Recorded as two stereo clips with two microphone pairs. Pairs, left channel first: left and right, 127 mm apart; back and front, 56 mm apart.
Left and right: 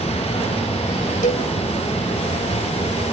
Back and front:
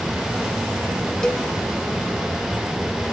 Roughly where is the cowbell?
Left.